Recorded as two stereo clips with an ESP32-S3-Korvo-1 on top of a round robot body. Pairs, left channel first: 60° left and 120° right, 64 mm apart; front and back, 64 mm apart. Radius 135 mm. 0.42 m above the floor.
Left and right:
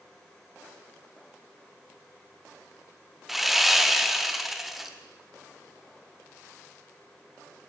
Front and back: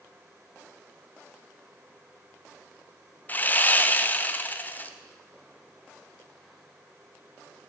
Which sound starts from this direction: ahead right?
Sawing, at 3.3 s.